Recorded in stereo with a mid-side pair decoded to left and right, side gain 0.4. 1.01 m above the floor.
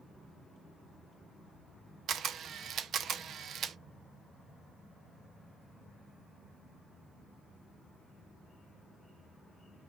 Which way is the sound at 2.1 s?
70° right.